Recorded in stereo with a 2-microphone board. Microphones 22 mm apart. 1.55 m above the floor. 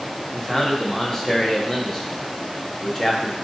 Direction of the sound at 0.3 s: 20° left (ahead or behind).